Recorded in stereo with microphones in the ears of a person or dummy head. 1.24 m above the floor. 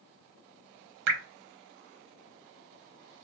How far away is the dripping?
About 0.8 m.